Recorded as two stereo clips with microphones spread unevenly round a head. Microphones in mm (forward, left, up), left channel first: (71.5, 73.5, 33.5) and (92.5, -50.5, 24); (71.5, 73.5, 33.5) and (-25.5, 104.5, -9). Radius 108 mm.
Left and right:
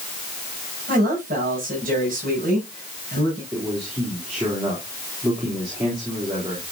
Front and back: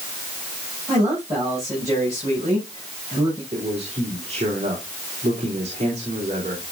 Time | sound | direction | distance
0.9 | a man speaking | 120° right | 8.5 m
3.5 | a man speaking | 145° right | 4 m